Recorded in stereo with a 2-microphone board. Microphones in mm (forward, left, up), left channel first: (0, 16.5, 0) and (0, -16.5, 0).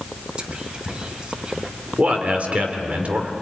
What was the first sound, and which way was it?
Whispering, 25° right (ahead or behind).